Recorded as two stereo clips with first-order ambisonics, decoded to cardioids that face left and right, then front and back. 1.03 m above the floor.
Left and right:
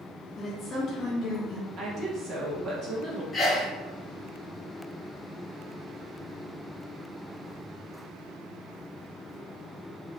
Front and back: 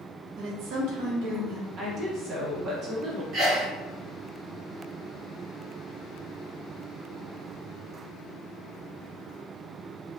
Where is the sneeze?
165° left, 1.0 m.